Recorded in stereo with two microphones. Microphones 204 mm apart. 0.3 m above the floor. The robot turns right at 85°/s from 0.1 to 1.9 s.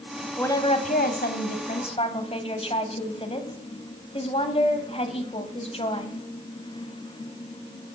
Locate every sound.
0.4 s a woman speaking: 10° left, 1.9 m; by 6.2 s 140° left, 1.9 m